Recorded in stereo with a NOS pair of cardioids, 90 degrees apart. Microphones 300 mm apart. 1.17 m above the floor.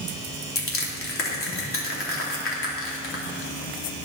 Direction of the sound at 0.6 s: 45° left.